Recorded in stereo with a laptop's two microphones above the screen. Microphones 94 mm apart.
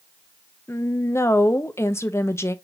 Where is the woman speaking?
30° left (ahead or behind), 0.7 m.